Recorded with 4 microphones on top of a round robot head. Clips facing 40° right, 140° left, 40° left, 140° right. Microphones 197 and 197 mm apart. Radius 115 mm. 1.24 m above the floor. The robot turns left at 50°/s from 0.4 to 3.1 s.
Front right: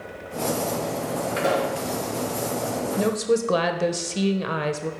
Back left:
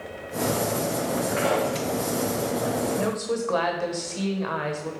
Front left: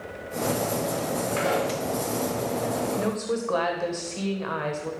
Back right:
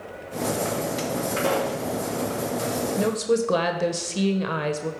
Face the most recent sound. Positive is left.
turn(degrees=-90)